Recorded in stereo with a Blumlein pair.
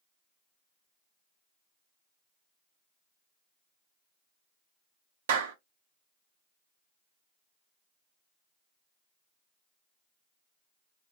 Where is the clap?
60° right, 0.6 m.